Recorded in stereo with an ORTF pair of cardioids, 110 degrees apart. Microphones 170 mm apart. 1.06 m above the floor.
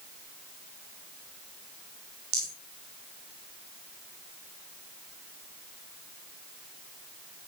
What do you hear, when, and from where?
2.3 s a rattle: 70° right, 5 m